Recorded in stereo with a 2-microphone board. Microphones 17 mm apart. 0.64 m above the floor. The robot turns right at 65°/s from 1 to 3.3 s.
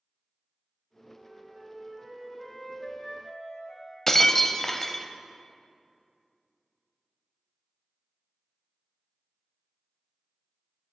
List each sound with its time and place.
1.2 s a flute: 45° right, 1.7 m; by 4.0 s 90° left, 1.7 m
4.1 s breaking glass: 20° left (ahead or behind), 0.6 m